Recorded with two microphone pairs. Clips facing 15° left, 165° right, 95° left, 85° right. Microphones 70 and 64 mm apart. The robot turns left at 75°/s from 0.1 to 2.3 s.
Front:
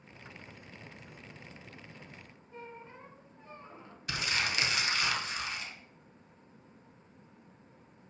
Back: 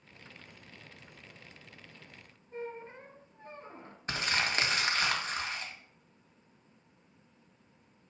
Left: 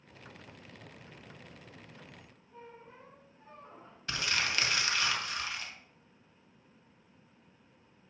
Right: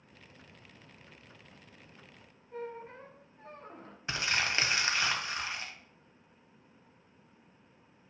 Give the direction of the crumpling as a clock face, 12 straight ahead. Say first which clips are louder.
Back 2 dB, right 1 dB; 5 o'clock.